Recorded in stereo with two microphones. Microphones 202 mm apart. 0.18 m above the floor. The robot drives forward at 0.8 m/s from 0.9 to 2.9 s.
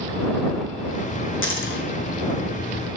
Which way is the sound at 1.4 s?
75° left (ahead or behind).